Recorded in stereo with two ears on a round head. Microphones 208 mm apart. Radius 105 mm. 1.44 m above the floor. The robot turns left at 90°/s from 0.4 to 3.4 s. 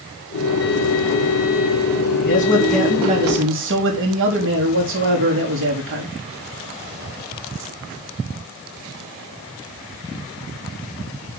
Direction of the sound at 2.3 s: 45° left.